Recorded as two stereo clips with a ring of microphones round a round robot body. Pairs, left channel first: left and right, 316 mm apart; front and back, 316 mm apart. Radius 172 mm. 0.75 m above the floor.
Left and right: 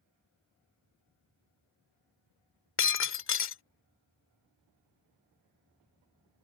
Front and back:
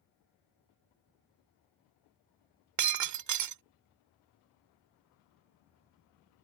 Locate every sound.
2.8 s breaking glass: 145° left